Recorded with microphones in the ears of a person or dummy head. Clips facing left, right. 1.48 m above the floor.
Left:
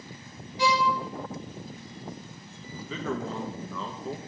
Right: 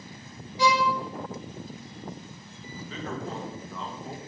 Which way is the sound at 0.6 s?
85° right.